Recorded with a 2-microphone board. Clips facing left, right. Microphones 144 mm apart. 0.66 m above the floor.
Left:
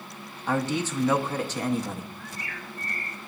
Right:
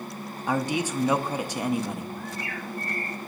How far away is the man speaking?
About 0.6 m.